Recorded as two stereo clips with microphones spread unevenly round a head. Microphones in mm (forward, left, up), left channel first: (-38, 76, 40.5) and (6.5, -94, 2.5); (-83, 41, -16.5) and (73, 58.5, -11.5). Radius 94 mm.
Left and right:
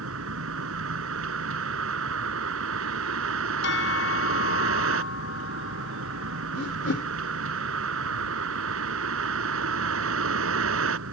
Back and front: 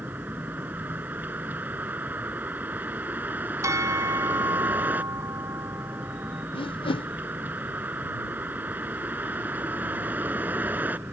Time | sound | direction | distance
0.0 | a vehicle | 75° right | ?
3.6 | a bell | 75° left | ?
6.5 | a whoosh | 130° left | ?